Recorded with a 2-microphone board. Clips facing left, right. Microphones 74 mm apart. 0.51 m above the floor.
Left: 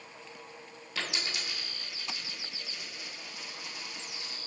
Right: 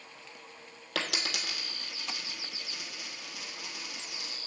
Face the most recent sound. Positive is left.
turn(degrees=-75)  # may be behind; listen again after turning